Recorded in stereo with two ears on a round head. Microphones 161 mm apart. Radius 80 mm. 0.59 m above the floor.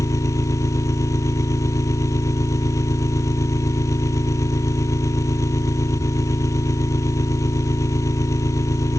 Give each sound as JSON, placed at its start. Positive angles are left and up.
{"t": 0.0, "sound": "an engine running", "side_deg": 15}